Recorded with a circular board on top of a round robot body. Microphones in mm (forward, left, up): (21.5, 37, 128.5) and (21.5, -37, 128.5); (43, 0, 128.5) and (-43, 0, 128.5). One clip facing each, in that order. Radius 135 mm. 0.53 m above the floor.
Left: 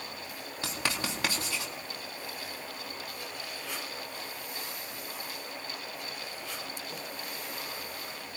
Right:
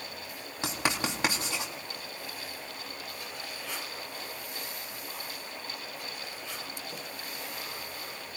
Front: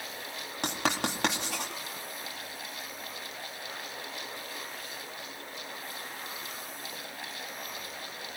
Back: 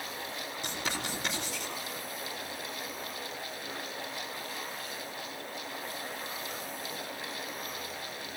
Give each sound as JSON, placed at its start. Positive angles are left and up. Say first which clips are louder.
{"t": 0.6, "sound": "writing", "louder": "right 3 dB, front 7 dB", "azimuth_deg": -20, "distance_m": 3.0}